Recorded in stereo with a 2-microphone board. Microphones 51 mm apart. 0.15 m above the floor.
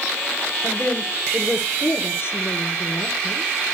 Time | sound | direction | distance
0.6 | a woman speaking | 40° left (ahead or behind) | 2.0 m